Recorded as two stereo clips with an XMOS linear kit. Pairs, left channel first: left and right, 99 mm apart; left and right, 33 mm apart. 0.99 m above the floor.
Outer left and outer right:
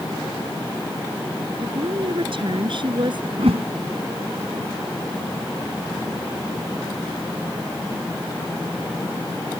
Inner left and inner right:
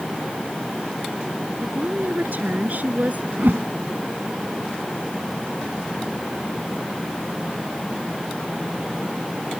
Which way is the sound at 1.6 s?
65° right (ahead or behind).